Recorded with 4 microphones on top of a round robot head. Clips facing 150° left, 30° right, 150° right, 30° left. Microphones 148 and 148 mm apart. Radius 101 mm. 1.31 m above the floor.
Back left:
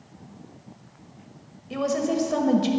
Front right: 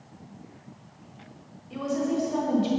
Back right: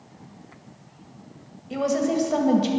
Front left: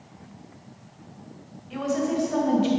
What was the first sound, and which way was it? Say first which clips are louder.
A woman speaking: back left 3 dB, back right 3 dB; 160° left.